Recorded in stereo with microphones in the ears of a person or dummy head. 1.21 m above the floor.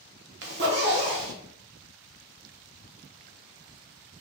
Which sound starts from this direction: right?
A zipper, at 0.4 s.